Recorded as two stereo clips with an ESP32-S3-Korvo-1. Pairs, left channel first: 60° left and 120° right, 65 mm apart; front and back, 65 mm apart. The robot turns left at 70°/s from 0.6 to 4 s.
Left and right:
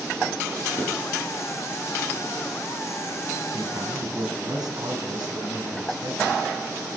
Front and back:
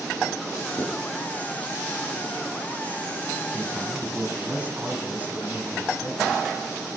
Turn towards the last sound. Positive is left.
turn(degrees=-115)